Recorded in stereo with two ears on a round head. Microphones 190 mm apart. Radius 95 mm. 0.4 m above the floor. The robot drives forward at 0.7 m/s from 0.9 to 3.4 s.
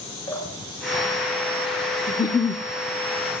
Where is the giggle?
15° left (ahead or behind), 0.7 m; by 2.6 s 20° left (ahead or behind), 0.6 m.